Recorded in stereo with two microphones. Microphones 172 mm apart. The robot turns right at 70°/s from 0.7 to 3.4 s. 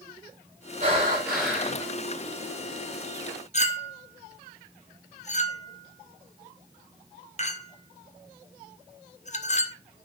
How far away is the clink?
About 0.9 m.